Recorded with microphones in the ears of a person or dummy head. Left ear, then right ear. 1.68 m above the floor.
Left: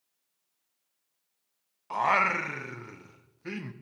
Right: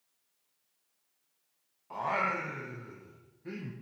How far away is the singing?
About 0.7 m.